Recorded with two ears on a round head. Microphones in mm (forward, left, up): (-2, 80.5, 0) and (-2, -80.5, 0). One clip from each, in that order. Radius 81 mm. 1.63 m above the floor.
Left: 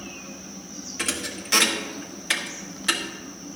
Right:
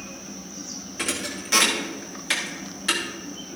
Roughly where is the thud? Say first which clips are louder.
Even; centre.